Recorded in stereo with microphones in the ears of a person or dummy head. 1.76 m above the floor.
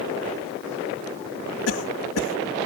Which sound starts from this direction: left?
A cough, at 1.7 s.